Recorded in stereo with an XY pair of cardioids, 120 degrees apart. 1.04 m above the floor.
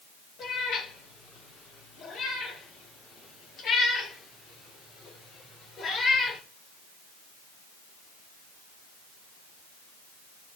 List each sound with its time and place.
0.4 s a cat meowing: 60° left, 9 m; by 6.4 s 40° left, 6.5 m